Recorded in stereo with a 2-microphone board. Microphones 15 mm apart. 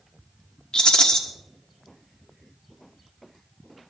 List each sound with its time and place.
0.7 s a rattle: 50° left (ahead or behind), 1.5 m